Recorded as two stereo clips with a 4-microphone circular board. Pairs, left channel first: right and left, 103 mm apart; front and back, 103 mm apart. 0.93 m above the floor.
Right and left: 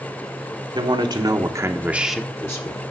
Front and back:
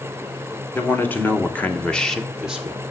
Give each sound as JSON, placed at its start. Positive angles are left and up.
{"t": 0.8, "sound": "a man speaking", "azimuth_deg": 65, "distance_m": 1.3}